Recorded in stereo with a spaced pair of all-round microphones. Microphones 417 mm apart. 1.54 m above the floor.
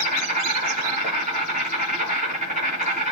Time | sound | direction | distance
0.0 | an insect | 15° right (ahead or behind) | 6.5 m